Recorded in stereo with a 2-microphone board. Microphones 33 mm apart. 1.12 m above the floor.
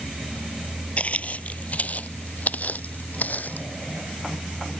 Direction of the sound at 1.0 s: 40° left (ahead or behind).